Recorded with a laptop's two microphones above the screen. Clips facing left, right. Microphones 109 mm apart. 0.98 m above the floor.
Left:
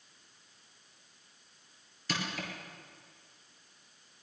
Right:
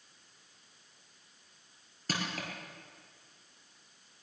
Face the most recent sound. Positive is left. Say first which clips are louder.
# even
turn(degrees=-45)  # may be behind; listen again after turning